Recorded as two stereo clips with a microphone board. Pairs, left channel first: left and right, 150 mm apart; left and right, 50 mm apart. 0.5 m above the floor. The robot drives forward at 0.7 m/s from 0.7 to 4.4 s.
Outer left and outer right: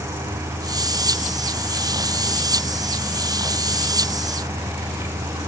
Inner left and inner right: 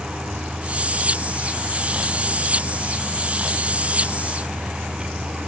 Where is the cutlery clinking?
I don't hear cutlery clinking.